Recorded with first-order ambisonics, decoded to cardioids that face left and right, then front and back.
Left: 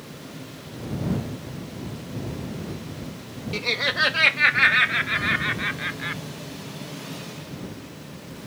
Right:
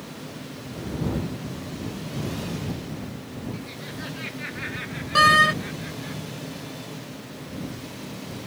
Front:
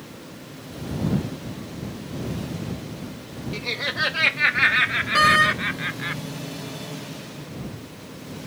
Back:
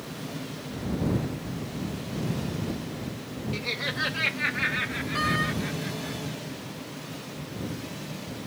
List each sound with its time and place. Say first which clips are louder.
3.5 s laughter: left 14 dB, front 4 dB; 85° left; by 6.2 s 45° left
5.2 s a door slam: right 8 dB, front 11 dB; 55° right